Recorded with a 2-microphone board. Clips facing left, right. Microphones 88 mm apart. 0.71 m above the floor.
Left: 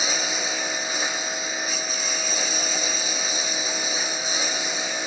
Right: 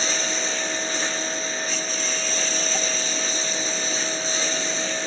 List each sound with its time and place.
0.0 s a lawn mower: 10° left (ahead or behind)